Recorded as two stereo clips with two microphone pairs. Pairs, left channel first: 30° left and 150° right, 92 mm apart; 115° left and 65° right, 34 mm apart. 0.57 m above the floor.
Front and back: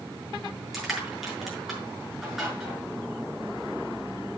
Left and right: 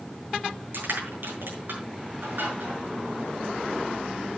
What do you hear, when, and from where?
0.7 s crushing: 60° right, 7 m